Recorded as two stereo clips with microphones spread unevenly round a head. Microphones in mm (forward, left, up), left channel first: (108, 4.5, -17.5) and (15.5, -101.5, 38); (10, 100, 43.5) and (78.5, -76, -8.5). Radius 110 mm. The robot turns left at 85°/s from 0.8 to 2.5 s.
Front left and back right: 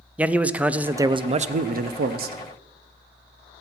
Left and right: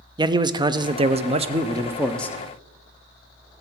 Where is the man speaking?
30° right, 0.5 m; by 2.4 s 165° right, 0.5 m.